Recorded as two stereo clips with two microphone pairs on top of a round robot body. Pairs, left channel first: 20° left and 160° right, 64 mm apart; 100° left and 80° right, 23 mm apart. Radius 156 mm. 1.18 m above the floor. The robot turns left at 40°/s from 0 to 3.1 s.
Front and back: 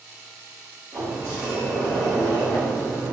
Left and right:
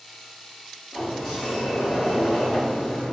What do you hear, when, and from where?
0.9 s a sliding door: 155° left, 1.2 m; by 3.1 s 65° left, 1.2 m